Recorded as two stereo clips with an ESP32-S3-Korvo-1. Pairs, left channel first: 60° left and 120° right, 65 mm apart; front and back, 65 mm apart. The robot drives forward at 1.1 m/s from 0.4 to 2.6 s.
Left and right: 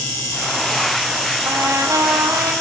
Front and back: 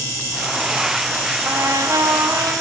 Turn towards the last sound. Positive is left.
turn(degrees=-155)